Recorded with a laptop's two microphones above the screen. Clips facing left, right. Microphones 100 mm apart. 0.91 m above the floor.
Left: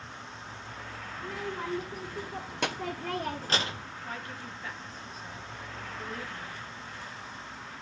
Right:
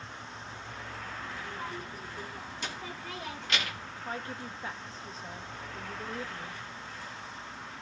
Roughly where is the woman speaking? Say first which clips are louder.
Right 2 dB; right.